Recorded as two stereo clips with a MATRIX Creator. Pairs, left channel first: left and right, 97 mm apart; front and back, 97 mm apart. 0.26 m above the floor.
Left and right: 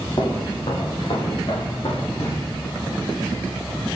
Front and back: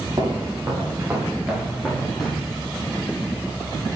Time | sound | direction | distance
0.2 | footsteps | 130° left | 2.5 m